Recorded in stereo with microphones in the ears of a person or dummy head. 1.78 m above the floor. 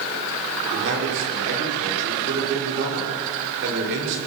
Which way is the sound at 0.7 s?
65° right (ahead or behind).